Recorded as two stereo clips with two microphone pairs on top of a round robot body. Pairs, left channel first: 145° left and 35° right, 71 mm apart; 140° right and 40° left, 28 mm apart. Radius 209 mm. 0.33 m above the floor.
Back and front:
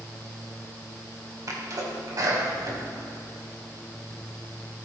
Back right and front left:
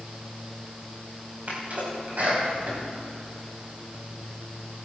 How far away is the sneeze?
About 4.5 m.